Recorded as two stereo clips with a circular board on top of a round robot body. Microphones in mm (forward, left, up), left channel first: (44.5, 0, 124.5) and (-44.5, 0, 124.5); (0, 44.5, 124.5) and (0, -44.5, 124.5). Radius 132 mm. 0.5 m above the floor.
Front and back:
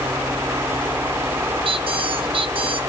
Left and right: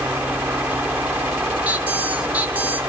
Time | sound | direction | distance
1.6 | a squeak | 165° right | 1.8 m